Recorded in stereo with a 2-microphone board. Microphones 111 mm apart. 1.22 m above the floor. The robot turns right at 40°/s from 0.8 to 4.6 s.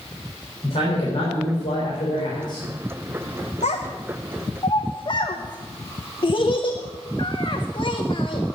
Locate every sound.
0.6 s a man speaking: 70° left, 3.5 m; by 2.7 s 140° left, 3.5 m
3.6 s a child speaking: 85° left, 0.9 m; by 8.4 s 45° left (ahead or behind), 0.9 m